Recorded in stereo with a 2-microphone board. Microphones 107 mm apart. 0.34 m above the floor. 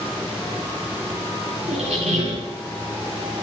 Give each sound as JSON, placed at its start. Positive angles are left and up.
{"t": 1.7, "sound": "a squeak", "side_deg": -80, "distance_m": 2.5}